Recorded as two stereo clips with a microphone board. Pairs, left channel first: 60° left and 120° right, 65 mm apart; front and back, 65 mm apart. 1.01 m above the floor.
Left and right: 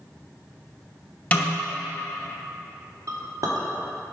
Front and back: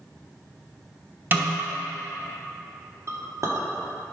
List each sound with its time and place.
1.3 s a snare drum: 125° left, 0.9 m
3.1 s a clink: 140° right, 1.0 m